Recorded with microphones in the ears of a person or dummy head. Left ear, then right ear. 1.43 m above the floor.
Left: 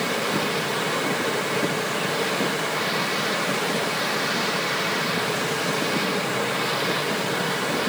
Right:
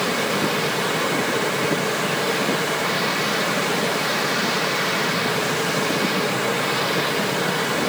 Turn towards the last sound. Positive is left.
No sound to turn to.